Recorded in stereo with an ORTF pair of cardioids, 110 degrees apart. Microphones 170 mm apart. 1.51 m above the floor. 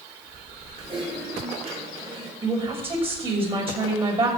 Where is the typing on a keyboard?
35° right, 4 m.